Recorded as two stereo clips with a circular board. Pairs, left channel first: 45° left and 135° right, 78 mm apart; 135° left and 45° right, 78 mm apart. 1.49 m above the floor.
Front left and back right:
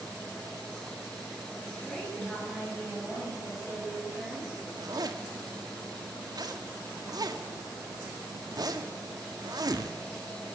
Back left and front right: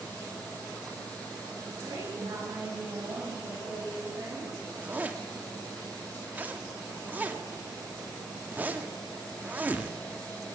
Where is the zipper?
110° right, 1.7 m.